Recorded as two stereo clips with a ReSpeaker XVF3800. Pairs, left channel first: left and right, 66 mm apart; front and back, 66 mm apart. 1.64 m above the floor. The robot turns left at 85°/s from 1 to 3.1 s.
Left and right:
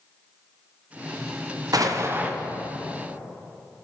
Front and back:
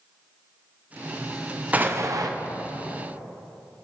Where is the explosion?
110° right, 0.7 m; by 2.3 s 160° right, 0.7 m.